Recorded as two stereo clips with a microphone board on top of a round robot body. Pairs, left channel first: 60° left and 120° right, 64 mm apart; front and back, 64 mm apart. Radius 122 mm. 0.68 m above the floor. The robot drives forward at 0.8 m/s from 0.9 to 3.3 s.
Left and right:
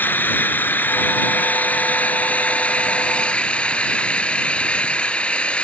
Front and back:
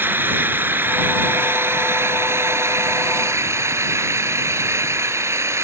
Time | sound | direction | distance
0.0 | an engine running | 120° left | ?